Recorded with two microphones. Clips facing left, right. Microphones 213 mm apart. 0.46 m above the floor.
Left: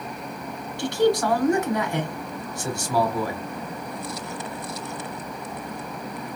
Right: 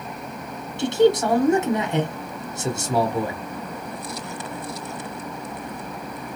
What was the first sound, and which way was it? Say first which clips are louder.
A man speaking: right 3 dB; 20° right (ahead or behind).